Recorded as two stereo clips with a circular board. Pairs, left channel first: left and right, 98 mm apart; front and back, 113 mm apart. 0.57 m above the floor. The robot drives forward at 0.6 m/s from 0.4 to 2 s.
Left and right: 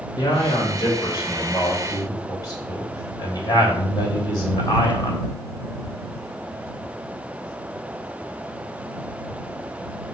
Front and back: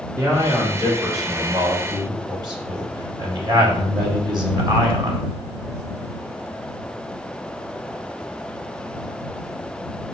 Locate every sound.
0.2 s a man speaking: 120° left, 2.5 m; by 5.2 s 140° left, 3 m